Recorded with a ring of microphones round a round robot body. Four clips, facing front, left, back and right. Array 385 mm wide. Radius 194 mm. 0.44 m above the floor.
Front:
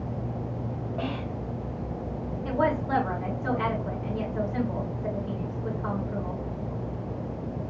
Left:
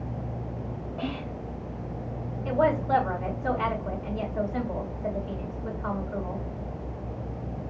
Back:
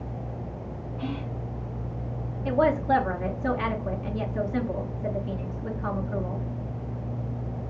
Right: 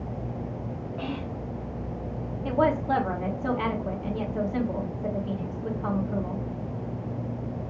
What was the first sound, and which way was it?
Whispering, 10° right.